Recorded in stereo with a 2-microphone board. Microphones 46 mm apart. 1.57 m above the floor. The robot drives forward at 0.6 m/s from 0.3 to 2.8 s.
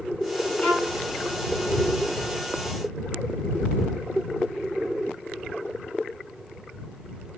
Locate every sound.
0.6 s a violin: 25° left (ahead or behind), 1.4 m; by 1.0 s 20° left (ahead or behind), 1.6 m